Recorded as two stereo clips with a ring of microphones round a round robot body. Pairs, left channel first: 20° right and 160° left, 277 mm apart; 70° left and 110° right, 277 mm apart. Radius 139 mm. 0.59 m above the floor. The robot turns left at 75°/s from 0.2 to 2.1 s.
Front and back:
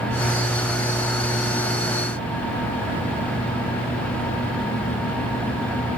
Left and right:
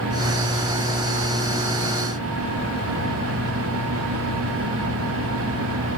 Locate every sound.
Only background noise.